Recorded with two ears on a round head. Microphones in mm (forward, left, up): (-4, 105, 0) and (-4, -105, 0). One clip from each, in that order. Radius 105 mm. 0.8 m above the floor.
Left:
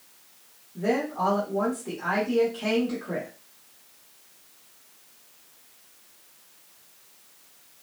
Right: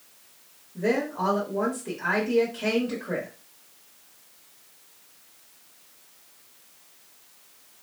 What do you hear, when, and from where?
0.8 s a woman speaking: 5° right (ahead or behind), 1.0 m